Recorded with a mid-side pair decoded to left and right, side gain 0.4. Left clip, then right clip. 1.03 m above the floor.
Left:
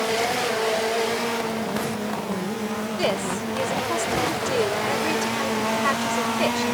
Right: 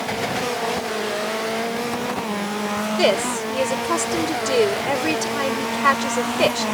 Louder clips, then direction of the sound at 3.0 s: Right 6 dB; 50° right.